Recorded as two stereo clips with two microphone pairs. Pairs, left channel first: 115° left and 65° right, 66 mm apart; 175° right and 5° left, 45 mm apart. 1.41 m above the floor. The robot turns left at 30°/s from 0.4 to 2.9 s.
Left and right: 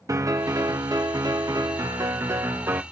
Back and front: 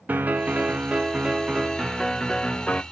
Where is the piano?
45° right, 0.7 m; by 2.8 s 120° right, 0.7 m.